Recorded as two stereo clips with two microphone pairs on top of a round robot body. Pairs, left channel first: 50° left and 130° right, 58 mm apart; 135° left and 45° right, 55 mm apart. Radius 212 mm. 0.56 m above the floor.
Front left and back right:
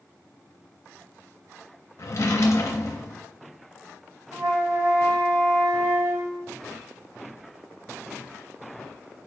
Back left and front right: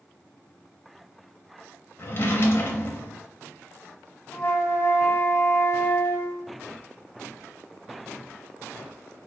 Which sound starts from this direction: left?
A drawer, at 2.0 s.